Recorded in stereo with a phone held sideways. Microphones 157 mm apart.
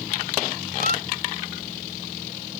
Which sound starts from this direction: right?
A squeak, at 0.8 s.